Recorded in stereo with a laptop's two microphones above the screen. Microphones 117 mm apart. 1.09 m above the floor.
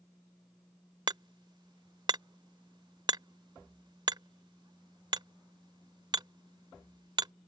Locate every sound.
1.1 s hammering: 40° right (ahead or behind)